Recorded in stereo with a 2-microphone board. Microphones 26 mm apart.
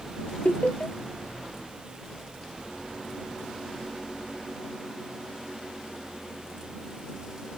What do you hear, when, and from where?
0.5 s laughter: 55° left (ahead or behind)